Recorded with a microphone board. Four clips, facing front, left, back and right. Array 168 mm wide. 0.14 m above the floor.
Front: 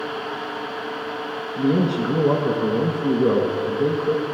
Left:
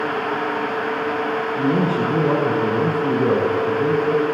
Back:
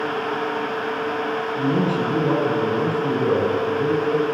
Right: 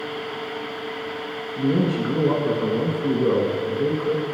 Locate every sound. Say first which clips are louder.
1.6 s a man speaking: even, front 2 dB; 35° left, 1.2 m